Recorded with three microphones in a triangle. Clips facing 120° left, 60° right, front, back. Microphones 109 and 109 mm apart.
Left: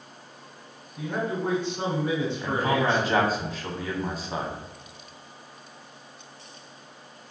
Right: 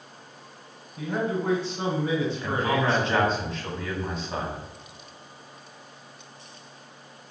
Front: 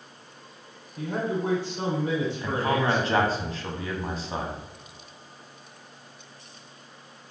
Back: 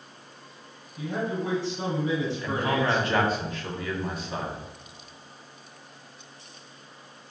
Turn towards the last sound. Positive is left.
turn(degrees=40)